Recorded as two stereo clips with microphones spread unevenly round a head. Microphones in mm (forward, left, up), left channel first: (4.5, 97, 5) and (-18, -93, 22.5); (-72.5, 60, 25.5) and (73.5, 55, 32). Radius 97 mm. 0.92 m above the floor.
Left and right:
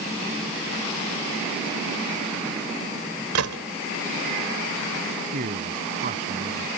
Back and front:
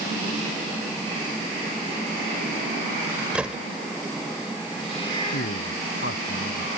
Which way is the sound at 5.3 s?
145° right.